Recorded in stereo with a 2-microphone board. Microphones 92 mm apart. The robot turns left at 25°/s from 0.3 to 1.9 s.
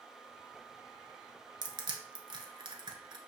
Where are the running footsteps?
No running footsteps in this recording.